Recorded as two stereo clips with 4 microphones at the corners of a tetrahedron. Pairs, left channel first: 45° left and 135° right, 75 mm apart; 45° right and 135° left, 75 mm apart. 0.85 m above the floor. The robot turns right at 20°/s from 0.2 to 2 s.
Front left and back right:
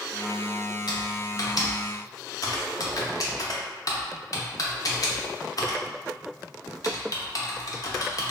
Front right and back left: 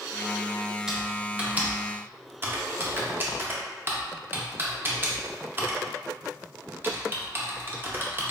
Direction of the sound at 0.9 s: 55° left.